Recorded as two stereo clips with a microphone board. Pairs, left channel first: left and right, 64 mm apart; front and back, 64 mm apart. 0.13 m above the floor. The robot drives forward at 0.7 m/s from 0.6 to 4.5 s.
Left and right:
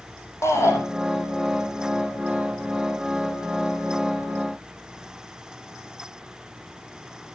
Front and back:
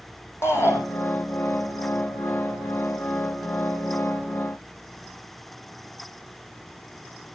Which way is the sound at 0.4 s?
50° left.